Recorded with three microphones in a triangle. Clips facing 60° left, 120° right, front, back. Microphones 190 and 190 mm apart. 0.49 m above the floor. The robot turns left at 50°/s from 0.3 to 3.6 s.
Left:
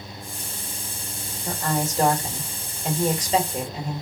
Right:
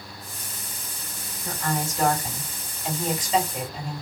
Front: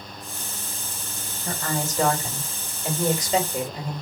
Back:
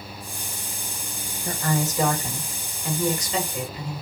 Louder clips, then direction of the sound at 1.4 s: Left 3 dB, back 3 dB; 140° left.